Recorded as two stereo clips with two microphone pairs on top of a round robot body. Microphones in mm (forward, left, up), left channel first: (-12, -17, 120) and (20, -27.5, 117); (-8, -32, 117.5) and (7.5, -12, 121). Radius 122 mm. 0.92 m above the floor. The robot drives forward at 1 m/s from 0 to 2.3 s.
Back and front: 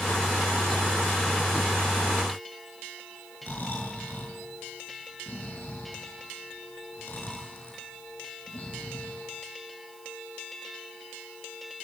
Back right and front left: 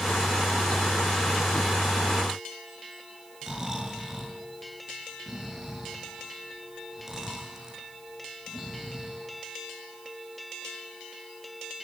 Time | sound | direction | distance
3.4 | snoring | 125° left | 6.5 m